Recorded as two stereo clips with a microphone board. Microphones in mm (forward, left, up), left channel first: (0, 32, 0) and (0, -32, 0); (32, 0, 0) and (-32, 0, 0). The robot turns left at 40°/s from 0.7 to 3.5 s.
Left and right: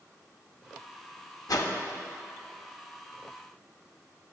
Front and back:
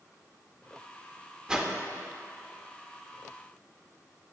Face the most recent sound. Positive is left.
turn(degrees=25)